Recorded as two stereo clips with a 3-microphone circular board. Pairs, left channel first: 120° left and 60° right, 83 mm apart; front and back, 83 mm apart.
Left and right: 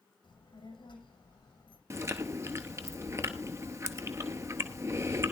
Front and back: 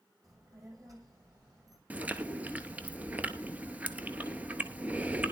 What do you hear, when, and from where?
0.2 s a child speaking: 135° left, 4 m
1.9 s chewing: 110° right, 0.8 m